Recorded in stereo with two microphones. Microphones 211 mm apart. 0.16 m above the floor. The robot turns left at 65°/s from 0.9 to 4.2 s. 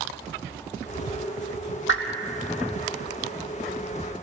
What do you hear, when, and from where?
1.9 s a whoosh: 65° left (ahead or behind), 1.1 m; by 2.0 s 55° left (ahead or behind), 1.1 m